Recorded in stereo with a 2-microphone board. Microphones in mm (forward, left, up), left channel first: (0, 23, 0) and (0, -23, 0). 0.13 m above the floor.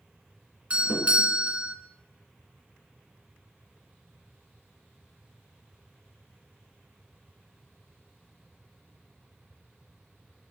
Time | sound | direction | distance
0.7 | a doorbell | 25° right (ahead or behind) | 1.7 m